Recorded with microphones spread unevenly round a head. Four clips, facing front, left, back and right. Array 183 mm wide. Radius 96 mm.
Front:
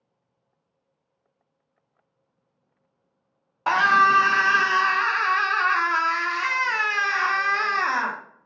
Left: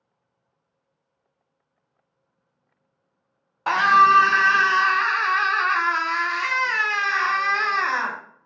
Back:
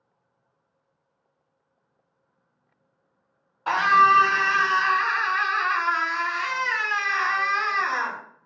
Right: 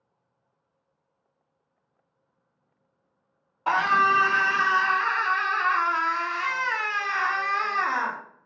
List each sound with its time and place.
3.7 s a scream: 25° left, 1.1 m